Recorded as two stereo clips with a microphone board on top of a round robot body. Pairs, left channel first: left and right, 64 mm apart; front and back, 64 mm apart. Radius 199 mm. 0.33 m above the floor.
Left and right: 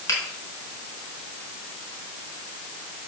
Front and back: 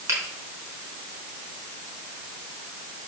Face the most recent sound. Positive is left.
turn(degrees=135)